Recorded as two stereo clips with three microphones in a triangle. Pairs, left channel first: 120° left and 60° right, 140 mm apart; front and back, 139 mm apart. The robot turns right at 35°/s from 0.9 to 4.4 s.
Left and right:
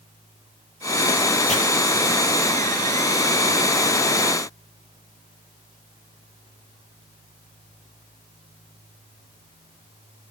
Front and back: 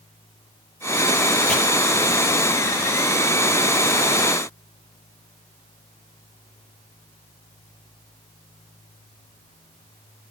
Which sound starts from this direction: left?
Chopping, at 1.5 s.